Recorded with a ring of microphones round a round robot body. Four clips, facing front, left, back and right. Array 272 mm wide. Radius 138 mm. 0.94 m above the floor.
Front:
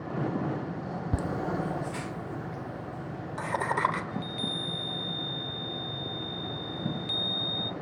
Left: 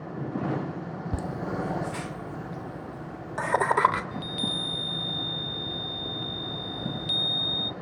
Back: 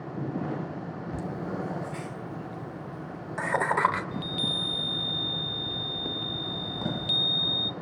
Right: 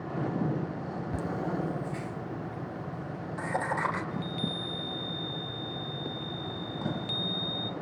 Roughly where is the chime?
Behind left.